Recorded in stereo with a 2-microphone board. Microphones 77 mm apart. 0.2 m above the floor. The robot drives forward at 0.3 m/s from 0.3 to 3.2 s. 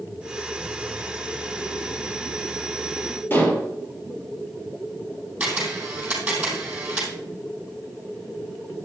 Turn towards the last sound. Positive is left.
turn(degrees=-20)  # may be behind; listen again after turning